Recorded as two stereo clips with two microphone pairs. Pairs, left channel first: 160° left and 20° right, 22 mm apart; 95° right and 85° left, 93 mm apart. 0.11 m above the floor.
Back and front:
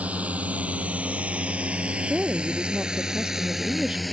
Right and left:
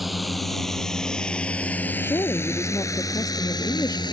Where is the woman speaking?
45° right.